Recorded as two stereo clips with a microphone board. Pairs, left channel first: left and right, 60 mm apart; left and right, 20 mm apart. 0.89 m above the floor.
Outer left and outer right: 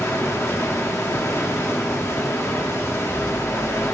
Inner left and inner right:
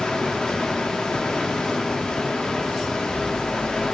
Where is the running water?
50° left (ahead or behind), 1.1 m.